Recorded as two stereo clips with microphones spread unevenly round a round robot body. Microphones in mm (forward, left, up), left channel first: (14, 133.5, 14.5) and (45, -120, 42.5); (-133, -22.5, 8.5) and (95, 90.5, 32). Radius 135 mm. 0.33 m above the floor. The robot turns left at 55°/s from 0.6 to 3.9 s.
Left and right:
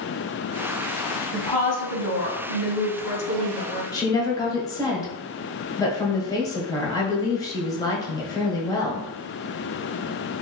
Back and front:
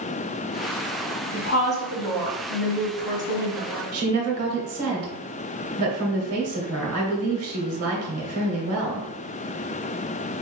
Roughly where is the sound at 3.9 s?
Ahead left.